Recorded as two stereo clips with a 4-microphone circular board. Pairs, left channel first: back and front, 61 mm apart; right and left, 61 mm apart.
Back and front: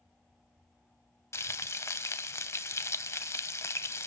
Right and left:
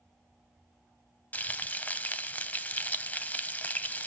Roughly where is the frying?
Behind right.